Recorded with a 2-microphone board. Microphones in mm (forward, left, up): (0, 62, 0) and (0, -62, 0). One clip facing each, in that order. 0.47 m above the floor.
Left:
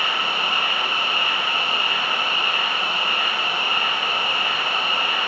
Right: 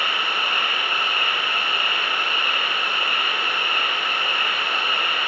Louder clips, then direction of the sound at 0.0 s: Left 1 dB; 50° right (ahead or behind).